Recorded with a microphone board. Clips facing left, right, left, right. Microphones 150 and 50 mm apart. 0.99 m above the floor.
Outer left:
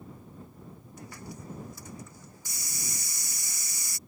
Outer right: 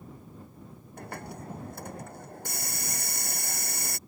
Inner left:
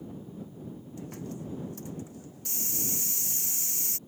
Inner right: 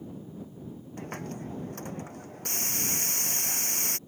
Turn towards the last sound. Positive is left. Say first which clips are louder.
# outer right 5 dB, inner right 3 dB
turn(degrees=-60)  # may be behind; listen again after turning